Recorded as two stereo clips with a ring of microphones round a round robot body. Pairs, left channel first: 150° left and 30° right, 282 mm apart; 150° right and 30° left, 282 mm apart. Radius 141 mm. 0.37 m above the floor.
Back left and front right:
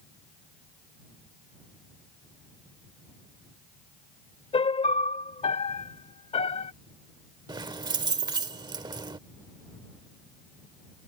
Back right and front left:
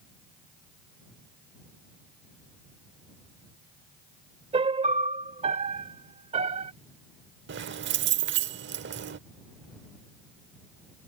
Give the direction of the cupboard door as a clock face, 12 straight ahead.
No cupboard door in this recording.